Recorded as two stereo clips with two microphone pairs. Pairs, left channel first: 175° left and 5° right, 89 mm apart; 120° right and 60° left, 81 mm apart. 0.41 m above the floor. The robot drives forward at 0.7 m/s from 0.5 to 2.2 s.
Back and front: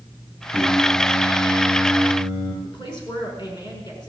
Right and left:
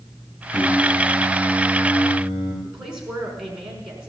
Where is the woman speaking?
145° left, 5 m.